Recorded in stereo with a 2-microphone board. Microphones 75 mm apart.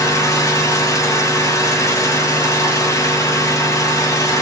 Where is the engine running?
45° left (ahead or behind), 4 m.